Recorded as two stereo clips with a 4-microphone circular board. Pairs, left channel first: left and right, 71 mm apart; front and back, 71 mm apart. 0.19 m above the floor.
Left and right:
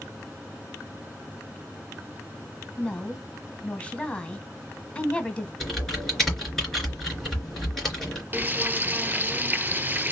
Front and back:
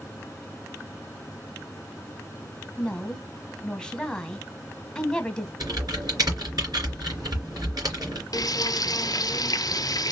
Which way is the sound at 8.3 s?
25° right.